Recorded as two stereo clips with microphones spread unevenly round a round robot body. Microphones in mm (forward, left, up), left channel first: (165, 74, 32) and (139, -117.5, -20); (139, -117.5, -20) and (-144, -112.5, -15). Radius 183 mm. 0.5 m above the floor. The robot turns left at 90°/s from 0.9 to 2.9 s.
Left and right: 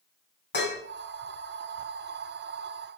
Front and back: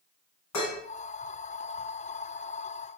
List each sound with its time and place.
0.5 s dishes clattering: 50° left, 2.5 m